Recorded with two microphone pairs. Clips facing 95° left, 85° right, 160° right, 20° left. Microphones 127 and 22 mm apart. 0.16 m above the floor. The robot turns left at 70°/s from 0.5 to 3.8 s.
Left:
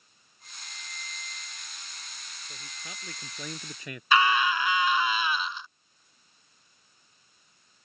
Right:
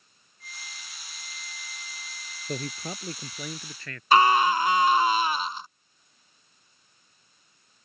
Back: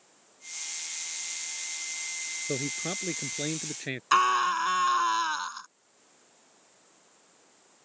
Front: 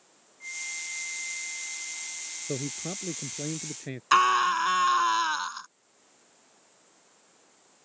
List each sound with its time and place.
0.4 s a flute: 25° left; by 3.5 s 175° left
2.5 s a man speaking: 100° right; by 4.0 s 170° left
4.1 s a scream: 55° right